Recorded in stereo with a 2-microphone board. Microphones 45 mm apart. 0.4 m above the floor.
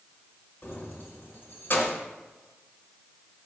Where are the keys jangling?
50° left (ahead or behind), 0.9 m.